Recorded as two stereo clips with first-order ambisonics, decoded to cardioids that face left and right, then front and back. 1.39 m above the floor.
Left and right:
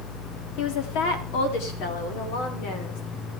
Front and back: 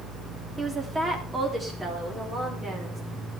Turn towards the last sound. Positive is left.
turn(degrees=105)